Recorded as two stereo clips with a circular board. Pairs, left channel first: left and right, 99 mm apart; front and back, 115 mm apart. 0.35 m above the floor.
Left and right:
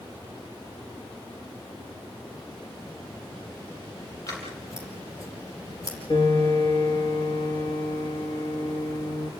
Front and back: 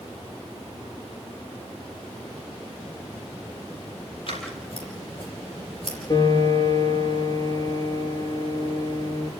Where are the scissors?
35° left, 6 m.